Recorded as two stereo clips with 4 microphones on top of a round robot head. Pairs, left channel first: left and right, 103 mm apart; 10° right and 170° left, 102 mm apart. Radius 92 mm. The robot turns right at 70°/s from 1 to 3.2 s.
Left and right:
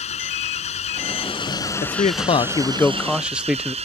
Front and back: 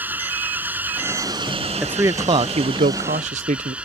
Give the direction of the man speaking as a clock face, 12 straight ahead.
9 o'clock.